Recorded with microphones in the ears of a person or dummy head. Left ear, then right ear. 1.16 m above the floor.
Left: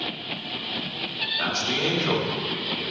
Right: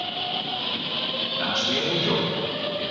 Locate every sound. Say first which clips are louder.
1.4 s a man speaking: right 1 dB; 80° left, 2.0 m